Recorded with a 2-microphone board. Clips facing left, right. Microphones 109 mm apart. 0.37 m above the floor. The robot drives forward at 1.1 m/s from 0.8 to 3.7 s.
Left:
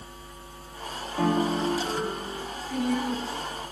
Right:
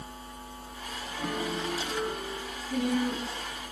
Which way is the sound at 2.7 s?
50° right (ahead or behind).